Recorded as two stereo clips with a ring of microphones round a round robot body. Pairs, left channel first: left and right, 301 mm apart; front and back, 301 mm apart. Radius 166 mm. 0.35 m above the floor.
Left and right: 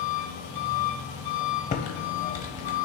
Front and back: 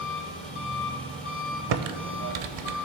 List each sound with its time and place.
0.0 s an engine running: 85° left, 2 m
1.7 s typing on a keyboard: 160° left, 0.6 m